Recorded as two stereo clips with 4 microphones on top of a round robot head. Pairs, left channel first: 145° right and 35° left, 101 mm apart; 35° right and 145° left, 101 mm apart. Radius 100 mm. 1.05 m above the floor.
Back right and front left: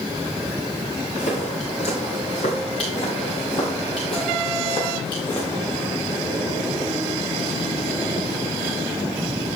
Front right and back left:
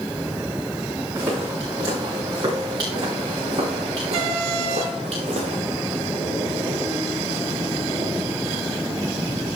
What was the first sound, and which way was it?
Footsteps, 150° right.